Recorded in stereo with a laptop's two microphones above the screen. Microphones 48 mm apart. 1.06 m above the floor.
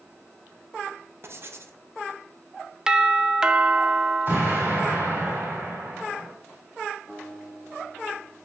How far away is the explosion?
About 3.5 m.